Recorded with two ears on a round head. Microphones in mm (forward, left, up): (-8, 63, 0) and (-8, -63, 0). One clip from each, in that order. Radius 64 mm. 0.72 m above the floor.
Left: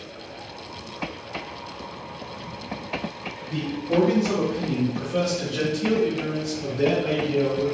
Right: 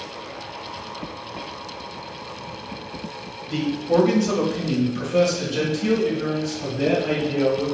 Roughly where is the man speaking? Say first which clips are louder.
Right 4 dB; right.